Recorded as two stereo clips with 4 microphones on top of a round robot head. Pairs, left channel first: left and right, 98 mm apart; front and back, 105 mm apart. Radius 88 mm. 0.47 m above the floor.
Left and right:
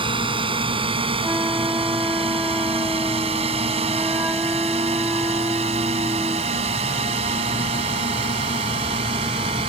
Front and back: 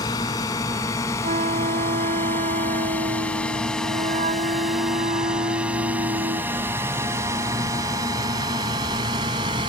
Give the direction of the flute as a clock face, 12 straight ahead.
6 o'clock.